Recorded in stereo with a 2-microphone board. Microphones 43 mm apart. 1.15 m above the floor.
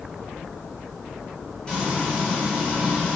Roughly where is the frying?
Centre.